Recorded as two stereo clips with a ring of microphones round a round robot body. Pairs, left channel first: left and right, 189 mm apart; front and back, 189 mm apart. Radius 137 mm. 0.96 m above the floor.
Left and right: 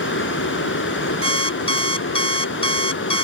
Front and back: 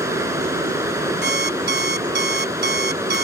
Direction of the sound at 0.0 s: 105° left.